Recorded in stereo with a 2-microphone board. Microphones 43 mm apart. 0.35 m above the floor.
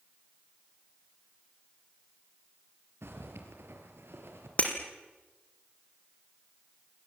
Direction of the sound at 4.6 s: 35° left (ahead or behind).